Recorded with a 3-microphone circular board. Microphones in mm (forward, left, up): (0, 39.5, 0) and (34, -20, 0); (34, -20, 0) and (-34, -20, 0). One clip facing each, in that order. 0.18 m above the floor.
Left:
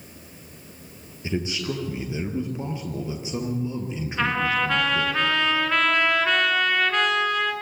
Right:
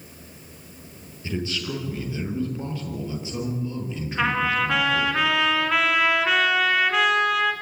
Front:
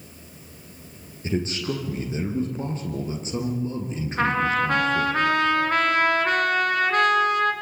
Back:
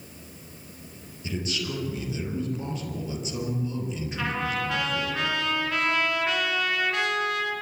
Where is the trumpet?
25° left, 2.5 m.